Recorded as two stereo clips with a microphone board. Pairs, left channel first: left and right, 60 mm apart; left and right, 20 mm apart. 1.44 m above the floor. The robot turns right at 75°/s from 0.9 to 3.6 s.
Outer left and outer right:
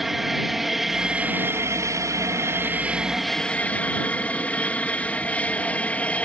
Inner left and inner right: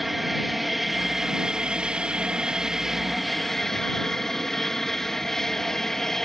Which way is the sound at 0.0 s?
175° right.